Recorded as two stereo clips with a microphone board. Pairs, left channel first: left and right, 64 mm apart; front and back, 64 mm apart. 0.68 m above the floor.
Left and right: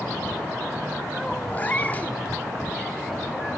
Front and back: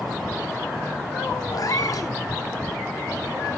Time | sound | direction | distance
1.5 | a cat meowing | 25° left | 0.6 m